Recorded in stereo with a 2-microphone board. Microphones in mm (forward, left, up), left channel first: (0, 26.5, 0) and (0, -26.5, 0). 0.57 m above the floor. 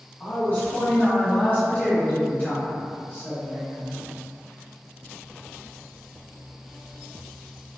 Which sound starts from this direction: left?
A woman speaking, at 0.2 s.